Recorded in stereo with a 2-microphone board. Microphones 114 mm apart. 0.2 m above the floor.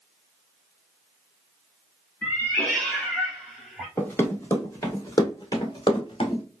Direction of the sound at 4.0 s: 15° left (ahead or behind).